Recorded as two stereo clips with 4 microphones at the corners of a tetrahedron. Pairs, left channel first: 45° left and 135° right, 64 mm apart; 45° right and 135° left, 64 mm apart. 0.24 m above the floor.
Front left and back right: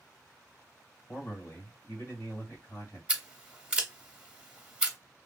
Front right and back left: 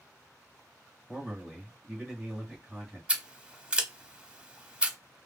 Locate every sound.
1.1 s a man speaking: 40° left, 1.9 m
3.1 s scissors: straight behind, 0.7 m